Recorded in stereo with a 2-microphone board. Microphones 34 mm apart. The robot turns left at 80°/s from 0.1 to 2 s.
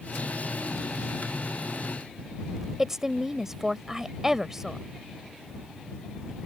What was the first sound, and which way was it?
A woman speaking, 15° right (ahead or behind).